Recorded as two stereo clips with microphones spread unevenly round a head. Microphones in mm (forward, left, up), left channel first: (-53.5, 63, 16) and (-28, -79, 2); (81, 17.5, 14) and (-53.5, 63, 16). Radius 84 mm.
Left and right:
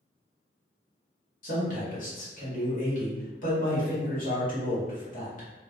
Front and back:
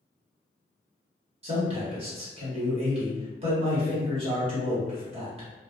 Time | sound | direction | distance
1.4 | a man speaking | 120° left | 1.4 m